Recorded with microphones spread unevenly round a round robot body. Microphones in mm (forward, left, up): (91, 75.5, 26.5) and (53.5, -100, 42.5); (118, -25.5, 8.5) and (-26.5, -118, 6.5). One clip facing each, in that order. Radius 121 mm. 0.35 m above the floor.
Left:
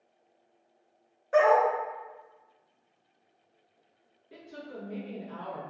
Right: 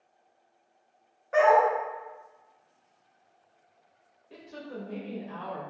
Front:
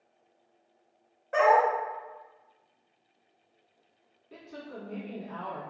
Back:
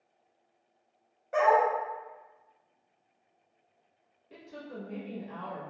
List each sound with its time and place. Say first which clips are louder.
1.3 s a dog barking: right 1 dB, front 2 dB; 130° left, 0.7 m
4.3 s a woman speaking: right 2 dB, front 1 dB; 165° right, 1.1 m